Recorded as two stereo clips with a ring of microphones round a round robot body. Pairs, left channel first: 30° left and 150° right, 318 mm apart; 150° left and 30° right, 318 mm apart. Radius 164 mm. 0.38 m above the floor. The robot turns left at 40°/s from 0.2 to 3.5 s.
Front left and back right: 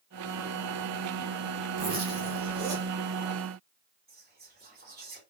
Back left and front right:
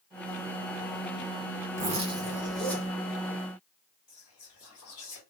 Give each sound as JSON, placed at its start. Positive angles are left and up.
{"t": 1.8, "sound": "a zipper", "azimuth_deg": -90, "distance_m": 1.1}
{"t": 4.1, "sound": "whispering", "azimuth_deg": 160, "distance_m": 2.0}